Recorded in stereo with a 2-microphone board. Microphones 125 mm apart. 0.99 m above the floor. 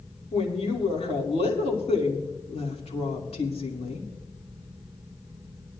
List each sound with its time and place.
0.3 s a woman speaking: 60° left (ahead or behind), 2.5 m